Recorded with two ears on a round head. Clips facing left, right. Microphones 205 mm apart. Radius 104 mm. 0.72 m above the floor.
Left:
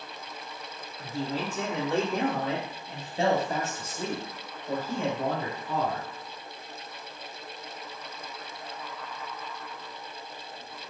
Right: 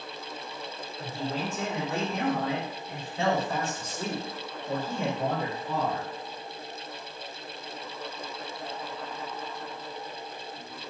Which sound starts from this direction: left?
A man speaking, at 1.0 s.